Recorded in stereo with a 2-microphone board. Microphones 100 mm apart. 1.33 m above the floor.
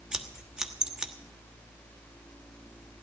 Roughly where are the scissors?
Centre.